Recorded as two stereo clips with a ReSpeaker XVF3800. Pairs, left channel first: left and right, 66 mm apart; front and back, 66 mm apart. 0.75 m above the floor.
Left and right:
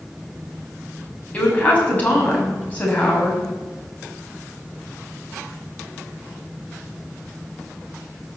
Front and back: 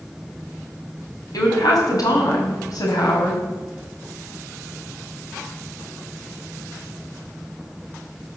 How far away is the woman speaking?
About 4.5 m.